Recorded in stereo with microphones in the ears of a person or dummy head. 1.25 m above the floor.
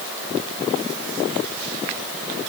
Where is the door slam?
I don't hear a door slam.